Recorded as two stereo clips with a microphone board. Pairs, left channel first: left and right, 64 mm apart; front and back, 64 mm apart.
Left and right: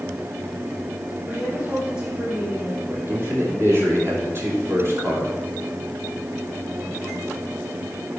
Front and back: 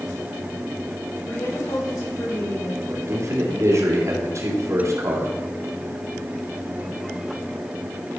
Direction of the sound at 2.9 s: 140° right.